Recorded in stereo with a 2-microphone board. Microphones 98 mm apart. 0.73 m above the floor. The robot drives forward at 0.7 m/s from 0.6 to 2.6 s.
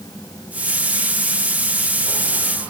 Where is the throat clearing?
I don't hear throat clearing.